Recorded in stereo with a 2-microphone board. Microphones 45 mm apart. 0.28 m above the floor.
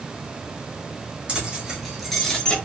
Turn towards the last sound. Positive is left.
turn(degrees=20)  # may be behind; listen again after turning